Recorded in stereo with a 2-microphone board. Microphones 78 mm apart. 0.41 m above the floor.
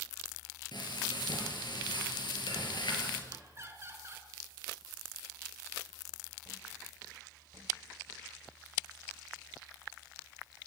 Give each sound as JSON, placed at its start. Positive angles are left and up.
{"t": 0.7, "sound": "frying", "side_deg": 75, "distance_m": 6.5}
{"t": 3.3, "sound": "laughter", "side_deg": -30, "distance_m": 6.0}